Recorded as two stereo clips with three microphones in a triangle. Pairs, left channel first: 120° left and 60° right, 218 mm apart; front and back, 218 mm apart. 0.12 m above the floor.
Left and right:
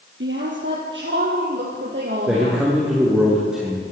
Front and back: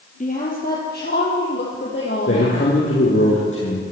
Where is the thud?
No thud in this recording.